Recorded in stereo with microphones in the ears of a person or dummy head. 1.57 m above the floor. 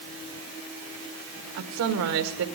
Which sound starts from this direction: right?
A woman speaking, at 1.6 s.